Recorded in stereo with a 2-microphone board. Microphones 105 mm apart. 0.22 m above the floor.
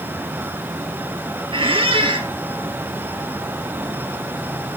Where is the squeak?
60° right (ahead or behind), 2.0 m.